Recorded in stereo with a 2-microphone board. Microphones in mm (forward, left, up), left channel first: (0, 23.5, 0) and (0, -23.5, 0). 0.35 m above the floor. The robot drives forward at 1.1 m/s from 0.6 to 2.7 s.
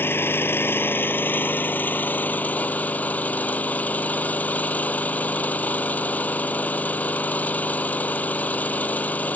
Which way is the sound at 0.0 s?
55° left (ahead or behind).